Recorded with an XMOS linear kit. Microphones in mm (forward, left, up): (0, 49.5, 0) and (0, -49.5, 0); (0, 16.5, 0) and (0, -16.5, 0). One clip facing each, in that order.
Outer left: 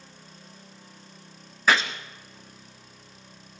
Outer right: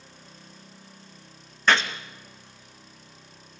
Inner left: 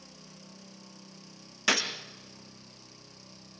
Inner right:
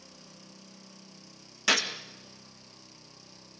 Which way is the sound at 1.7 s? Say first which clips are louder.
Even, inner right 1 dB; 5° left (ahead or behind).